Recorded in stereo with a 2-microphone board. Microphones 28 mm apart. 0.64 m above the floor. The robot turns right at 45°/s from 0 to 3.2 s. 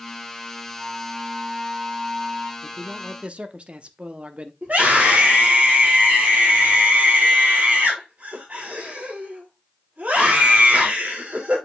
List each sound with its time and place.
0.8 s a flute: 175° right, 1.5 m; by 2.5 s 100° right, 1.5 m
2.6 s a man speaking: 25° right (ahead or behind), 0.8 m; by 4.5 s 40° right (ahead or behind), 0.8 m
4.6 s a scream: 65° right (ahead or behind), 2.5 m